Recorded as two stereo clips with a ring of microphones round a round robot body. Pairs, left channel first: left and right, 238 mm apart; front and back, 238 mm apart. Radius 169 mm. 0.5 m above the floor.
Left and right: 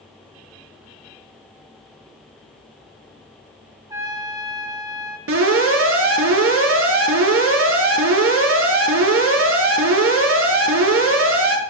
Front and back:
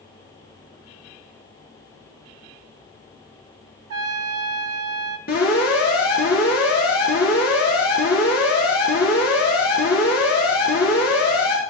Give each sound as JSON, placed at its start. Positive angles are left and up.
{"t": 3.9, "sound": "a trumpet", "azimuth_deg": -170, "distance_m": 1.3}
{"t": 5.3, "sound": "an alarm", "azimuth_deg": -65, "distance_m": 6.0}